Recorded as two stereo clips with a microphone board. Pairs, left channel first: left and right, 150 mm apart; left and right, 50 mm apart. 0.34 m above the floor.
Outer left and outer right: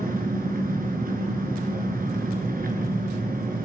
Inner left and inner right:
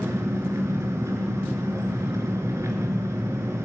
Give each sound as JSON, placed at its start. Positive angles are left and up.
{"t": 0.0, "sound": "an engine running", "side_deg": -75, "distance_m": 3.5}